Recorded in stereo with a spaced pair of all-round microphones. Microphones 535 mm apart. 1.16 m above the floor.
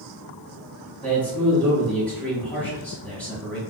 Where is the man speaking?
5° left (ahead or behind), 1.9 m.